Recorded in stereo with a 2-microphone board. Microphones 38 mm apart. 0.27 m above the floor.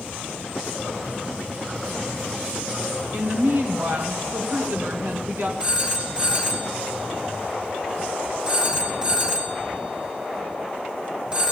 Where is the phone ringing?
25° right (ahead or behind), 2 m.